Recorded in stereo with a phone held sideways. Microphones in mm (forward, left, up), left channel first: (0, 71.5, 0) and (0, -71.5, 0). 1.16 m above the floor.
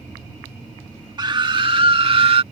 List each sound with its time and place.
1.2 s a scream: 30° right (ahead or behind); by 2.4 s 45° right (ahead or behind)